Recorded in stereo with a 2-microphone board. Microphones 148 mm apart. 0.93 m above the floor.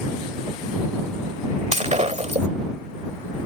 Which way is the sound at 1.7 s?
50° right (ahead or behind).